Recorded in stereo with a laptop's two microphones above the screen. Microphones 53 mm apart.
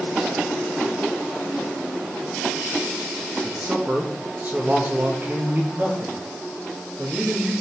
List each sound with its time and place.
3.4 s a man speaking: 35° right (ahead or behind), 1.2 m
5.7 s a man speaking: 30° right (ahead or behind), 2.0 m